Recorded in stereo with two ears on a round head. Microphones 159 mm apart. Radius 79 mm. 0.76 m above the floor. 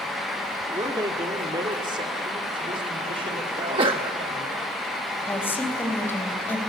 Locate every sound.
0.7 s a man speaking: 15° right (ahead or behind), 1.8 m; by 4.6 s 35° right (ahead or behind), 5 m
3.6 s a sneeze: 30° right (ahead or behind), 1.0 m
5.3 s a woman speaking: 15° left (ahead or behind), 3 m